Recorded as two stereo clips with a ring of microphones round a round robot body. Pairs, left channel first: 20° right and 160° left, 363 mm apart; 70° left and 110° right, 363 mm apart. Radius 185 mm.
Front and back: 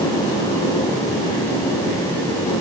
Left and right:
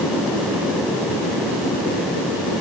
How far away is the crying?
No crying in this recording.